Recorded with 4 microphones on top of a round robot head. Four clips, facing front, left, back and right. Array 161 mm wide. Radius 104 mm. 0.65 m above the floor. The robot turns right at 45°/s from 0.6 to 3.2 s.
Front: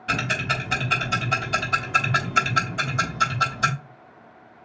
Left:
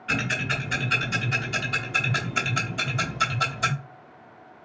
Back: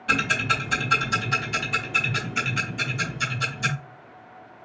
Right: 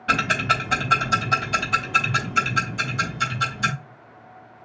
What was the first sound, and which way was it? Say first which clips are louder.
Ticking: right 7 dB, back 1 dB; 80° right.